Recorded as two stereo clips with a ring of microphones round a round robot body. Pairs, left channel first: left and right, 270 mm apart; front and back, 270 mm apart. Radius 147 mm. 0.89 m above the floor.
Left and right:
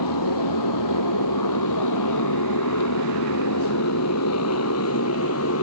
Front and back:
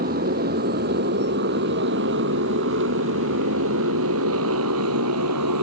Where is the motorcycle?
115° left; by 5.6 s 140° left.